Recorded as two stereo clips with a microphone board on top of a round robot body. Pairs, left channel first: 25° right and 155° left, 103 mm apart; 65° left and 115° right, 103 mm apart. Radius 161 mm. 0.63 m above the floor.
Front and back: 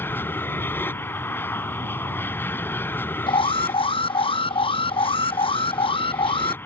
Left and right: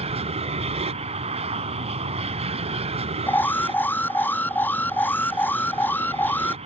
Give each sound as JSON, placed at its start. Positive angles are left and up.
{"t": 0.0, "sound": "an aircraft", "azimuth_deg": -95}
{"t": 3.3, "sound": "an alarm", "azimuth_deg": 0}